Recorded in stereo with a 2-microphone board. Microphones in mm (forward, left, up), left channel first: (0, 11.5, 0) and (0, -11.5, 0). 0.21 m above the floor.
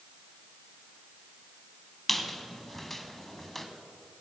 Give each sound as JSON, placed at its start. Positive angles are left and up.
{"t": 2.1, "sound": "a squeak", "side_deg": 10, "distance_m": 1.0}